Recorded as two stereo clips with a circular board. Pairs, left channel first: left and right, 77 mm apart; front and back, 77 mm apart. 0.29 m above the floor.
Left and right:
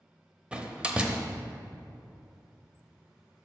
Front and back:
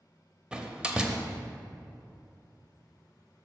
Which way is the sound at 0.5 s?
130° right.